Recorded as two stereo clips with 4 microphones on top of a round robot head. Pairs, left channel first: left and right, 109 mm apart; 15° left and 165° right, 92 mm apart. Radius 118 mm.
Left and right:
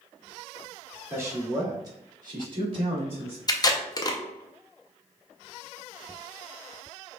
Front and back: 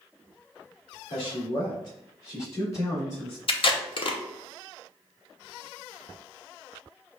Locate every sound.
1.1 s a man speaking: 20° right, 2 m; by 3.4 s 60° right, 2.5 m
3.5 s tape being pulled: 35° left, 0.8 m